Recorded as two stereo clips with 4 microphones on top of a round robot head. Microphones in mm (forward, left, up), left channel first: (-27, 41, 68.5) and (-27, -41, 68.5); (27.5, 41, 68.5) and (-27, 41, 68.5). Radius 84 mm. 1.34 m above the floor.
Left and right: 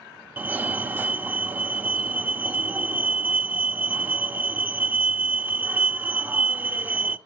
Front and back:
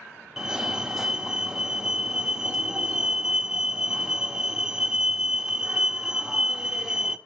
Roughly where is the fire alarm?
Right.